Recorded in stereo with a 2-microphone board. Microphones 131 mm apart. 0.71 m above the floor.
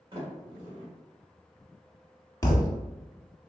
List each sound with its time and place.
0.1 s a sliding door: 40° right (ahead or behind), 1.4 m
2.4 s a thud: 25° left (ahead or behind), 0.6 m